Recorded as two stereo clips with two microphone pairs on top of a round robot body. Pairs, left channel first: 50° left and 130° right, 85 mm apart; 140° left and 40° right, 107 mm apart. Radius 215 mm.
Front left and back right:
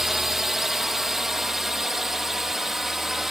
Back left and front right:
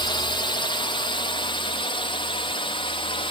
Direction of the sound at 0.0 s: 145° left.